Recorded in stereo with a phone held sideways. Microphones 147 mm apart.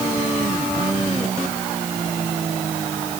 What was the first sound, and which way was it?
Only background noise.